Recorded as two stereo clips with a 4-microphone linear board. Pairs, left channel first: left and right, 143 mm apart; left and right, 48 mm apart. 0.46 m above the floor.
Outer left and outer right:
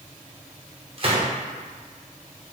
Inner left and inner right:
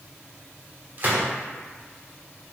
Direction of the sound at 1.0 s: 40° right (ahead or behind).